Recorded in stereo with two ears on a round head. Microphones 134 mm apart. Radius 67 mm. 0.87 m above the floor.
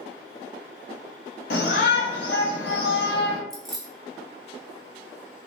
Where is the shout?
75° left (ahead or behind), 1.3 m.